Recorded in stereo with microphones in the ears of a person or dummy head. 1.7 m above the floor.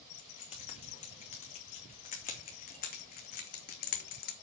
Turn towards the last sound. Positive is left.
turn(degrees=60)  # may be behind; listen again after turning